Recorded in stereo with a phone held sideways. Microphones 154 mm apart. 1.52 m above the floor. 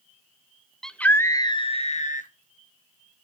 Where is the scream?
5° left (ahead or behind), 1.0 m; by 2.3 s 65° left (ahead or behind), 1.1 m.